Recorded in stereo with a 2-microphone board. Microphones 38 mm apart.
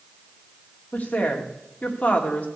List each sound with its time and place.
0.9 s a woman speaking: 40° left (ahead or behind), 2 m